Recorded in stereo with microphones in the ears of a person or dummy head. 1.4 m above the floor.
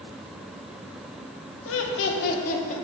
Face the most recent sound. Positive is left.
turn(degrees=40)  # may be behind; listen again after turning